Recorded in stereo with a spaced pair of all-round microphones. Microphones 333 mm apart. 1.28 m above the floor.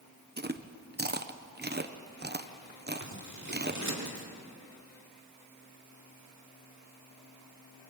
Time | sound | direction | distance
0.4 | chewing | 30° right (ahead or behind) | 0.8 m
3.0 | scissors | 60° right (ahead or behind) | 2 m